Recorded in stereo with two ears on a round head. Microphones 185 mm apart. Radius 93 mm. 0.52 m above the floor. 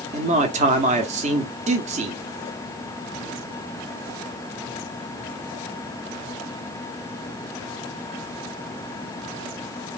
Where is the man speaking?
35° right (ahead or behind), 0.7 m.